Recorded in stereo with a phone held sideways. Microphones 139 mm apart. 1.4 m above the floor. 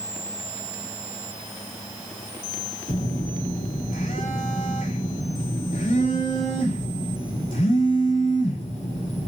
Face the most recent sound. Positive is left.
turn(degrees=70)  # may be behind; listen again after turning